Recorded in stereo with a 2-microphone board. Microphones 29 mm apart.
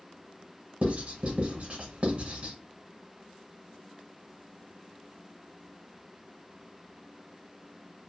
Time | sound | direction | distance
0.8 | writing | 50° right (ahead or behind) | 0.8 m